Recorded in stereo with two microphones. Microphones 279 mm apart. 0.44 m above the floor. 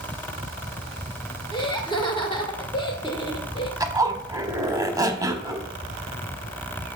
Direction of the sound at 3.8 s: 15° right (ahead or behind).